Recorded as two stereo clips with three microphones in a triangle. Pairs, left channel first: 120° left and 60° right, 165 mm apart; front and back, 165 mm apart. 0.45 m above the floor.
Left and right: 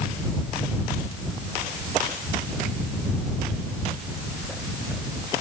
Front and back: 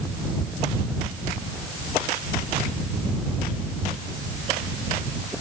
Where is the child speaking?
I don't hear a child speaking.